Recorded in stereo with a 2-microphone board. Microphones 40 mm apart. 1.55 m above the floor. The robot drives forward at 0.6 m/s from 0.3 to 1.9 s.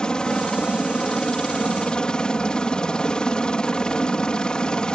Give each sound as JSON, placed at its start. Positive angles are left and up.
{"t": 0.0, "sound": "a helicopter", "side_deg": 20}